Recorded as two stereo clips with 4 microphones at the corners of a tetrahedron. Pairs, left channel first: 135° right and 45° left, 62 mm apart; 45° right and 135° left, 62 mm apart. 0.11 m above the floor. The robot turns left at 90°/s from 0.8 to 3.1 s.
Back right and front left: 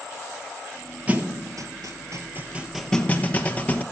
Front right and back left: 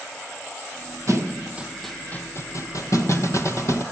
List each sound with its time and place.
1.1 s a thud: 110° left, 1.2 m; by 3.8 s 75° right, 1.2 m